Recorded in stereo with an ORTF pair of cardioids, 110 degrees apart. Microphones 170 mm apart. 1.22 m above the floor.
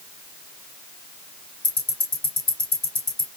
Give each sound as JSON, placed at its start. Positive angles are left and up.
{"t": 1.6, "sound": "ticking", "azimuth_deg": 25, "distance_m": 3.0}